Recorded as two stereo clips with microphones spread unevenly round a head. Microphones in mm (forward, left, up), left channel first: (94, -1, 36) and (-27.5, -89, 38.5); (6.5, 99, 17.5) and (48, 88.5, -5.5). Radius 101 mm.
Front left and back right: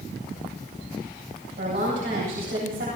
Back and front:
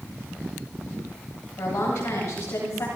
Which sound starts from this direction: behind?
A woman speaking, at 1.6 s.